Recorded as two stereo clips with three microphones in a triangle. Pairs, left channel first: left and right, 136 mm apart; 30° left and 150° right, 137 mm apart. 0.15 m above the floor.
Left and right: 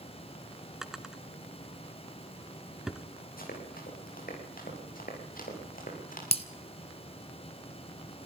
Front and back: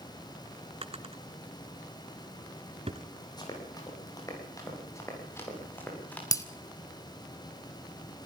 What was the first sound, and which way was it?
A drawer, 175° right.